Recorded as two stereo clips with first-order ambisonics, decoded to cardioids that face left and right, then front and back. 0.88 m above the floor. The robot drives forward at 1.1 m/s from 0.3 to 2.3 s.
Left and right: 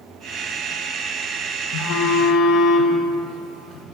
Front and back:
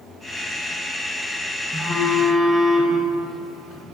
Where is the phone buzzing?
80° left, 3 m; by 3.9 s 95° left, 3 m.